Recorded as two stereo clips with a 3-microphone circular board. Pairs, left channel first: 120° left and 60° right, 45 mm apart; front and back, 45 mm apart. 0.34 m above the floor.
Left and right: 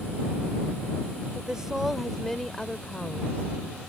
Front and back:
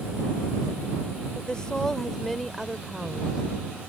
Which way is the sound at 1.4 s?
20° right.